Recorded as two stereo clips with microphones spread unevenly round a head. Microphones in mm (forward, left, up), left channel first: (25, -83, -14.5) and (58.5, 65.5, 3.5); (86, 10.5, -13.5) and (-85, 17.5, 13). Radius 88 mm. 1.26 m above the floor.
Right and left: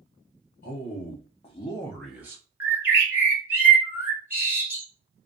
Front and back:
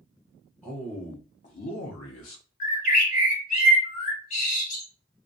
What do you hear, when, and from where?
0.6 s a man speaking: 85° right, 0.8 m; by 2.4 s 5° left, 0.6 m
2.6 s a bird: 20° left, 1.3 m